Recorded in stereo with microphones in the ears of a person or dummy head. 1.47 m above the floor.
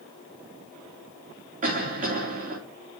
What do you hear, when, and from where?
1.6 s a cough: 40° right (ahead or behind), 3 m